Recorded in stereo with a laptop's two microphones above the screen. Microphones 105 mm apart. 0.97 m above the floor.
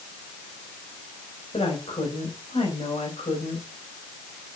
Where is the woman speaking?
75° left (ahead or behind), 5 m.